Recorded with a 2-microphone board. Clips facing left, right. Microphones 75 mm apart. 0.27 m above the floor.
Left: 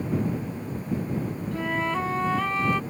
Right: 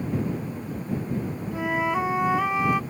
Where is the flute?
15° right (ahead or behind).